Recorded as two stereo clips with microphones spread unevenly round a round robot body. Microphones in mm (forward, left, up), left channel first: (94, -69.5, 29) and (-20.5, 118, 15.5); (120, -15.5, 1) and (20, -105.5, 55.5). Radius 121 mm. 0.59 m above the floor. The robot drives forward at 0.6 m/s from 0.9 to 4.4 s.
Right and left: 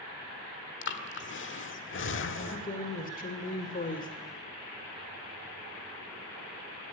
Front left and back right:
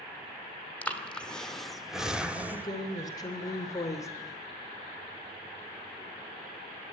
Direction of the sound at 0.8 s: 25° right.